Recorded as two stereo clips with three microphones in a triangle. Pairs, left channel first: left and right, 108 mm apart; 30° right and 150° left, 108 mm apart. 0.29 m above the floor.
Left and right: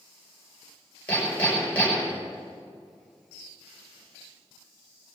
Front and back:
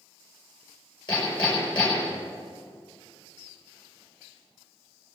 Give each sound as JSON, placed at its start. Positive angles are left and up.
{"t": 1.1, "sound": "hammering", "azimuth_deg": 15, "distance_m": 6.0}